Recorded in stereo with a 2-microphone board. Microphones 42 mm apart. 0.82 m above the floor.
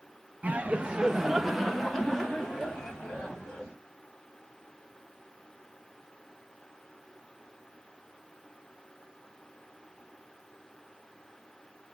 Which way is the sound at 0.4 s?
30° right (ahead or behind).